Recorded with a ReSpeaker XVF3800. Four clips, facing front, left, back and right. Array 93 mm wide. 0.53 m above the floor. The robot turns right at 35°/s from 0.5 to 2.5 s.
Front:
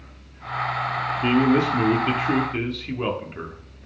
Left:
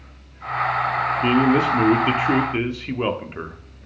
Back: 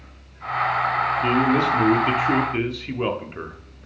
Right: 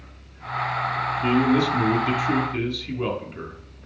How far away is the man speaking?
About 0.7 m.